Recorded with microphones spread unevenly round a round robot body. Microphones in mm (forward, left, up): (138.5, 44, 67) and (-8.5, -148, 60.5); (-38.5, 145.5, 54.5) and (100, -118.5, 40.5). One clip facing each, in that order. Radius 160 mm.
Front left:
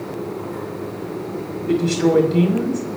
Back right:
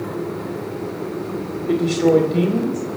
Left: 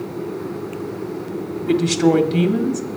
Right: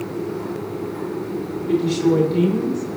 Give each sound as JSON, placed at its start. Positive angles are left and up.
{"t": 1.7, "sound": "a woman speaking", "azimuth_deg": 140, "distance_m": 1.8}